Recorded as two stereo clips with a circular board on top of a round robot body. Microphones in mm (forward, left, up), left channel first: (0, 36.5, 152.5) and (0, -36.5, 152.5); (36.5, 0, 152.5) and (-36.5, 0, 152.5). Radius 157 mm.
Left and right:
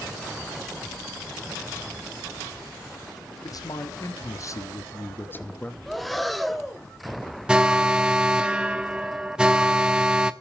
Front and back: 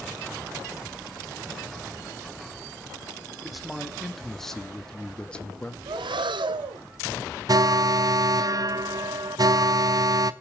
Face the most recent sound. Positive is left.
turn(degrees=-165)